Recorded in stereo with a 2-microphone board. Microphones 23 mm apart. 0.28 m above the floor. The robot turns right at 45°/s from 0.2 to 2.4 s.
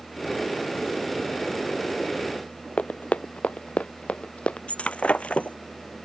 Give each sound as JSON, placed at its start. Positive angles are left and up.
{"t": 2.8, "sound": "running footsteps", "side_deg": 80}
{"t": 4.7, "sound": "breaking glass", "side_deg": 75}